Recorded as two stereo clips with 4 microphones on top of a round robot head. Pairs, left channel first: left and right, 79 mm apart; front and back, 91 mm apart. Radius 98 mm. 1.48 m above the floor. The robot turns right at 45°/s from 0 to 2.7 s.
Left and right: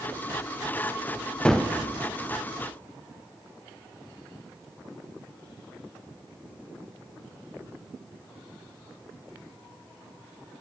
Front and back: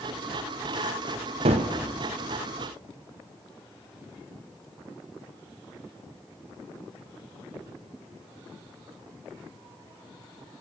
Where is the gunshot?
170° left, 0.6 m; by 1.7 s straight behind, 0.6 m.